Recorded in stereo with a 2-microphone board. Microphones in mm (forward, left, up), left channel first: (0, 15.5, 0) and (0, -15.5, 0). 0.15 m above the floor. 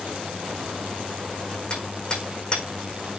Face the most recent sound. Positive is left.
turn(degrees=30)  # may be behind; listen again after turning